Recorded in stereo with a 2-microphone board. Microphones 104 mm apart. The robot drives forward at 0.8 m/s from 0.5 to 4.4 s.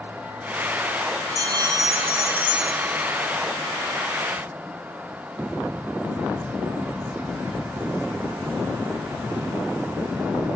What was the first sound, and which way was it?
A bell, 40° right (ahead or behind).